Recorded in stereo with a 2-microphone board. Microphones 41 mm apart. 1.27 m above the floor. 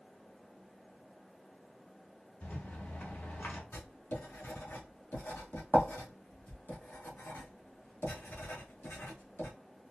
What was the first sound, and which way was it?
A rattle, 55° left (ahead or behind).